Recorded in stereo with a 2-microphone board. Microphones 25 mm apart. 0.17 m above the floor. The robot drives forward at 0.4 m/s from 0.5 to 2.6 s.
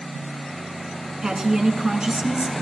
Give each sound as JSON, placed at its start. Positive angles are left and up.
{"t": 1.2, "sound": "a woman speaking", "side_deg": -30, "distance_m": 2.0}